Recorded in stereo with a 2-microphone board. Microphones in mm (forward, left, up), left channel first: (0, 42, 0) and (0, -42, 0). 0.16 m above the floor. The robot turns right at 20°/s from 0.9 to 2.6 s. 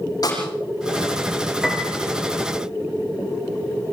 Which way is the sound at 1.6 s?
5° right (ahead or behind).